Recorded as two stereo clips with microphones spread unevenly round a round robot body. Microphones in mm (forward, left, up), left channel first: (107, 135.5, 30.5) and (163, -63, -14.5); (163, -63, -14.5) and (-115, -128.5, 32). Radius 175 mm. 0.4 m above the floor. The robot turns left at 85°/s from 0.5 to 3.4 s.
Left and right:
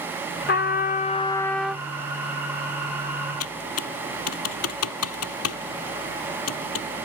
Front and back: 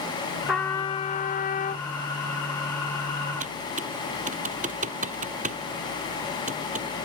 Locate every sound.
0.5 s a trumpet: 95° left; by 1.8 s 20° right
3.4 s typing on a keyboard: 125° left